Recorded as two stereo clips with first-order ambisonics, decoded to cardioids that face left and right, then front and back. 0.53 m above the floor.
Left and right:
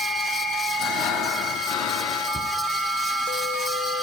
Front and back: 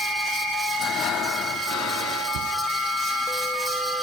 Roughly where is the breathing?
Ahead left.